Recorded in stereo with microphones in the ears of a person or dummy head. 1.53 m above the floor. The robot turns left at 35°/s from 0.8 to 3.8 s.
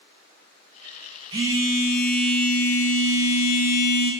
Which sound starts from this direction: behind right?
A phone buzzing, at 1.3 s.